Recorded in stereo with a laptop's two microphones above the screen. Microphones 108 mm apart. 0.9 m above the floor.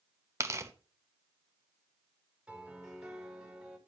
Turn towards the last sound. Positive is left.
turn(degrees=-5)  # may be behind; listen again after turning